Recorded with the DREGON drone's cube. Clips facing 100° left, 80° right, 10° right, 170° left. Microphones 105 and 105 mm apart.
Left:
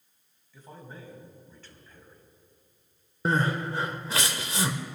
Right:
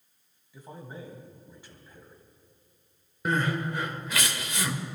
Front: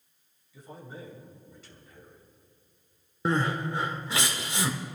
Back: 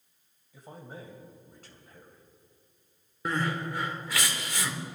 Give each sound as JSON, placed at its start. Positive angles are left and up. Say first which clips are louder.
{"t": 0.5, "sound": "a man speaking", "louder": "right 3 dB, front 1 dB", "azimuth_deg": -155, "distance_m": 2.5}
{"t": 3.2, "sound": "crying", "louder": "left 1 dB, front 3 dB", "azimuth_deg": 50, "distance_m": 1.0}